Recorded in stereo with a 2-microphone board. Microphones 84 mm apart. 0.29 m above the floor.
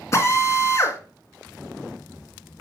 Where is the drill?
35° left (ahead or behind), 2 m.